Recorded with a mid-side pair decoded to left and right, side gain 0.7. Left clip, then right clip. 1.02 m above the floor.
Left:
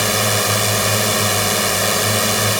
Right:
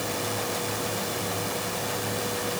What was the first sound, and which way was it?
A drone, 55° left.